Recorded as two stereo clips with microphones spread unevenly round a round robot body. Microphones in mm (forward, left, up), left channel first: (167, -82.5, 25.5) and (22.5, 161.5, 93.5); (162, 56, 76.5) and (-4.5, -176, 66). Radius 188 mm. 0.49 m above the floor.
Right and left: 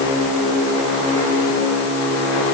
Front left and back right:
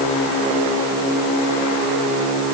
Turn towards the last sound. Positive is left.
No sound to turn to.